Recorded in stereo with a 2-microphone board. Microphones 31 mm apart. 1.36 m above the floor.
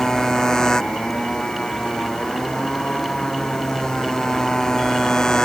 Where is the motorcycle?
20° left (ahead or behind).